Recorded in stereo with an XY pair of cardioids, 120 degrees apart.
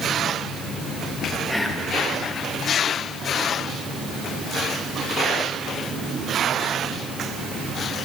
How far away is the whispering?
About 1.4 m.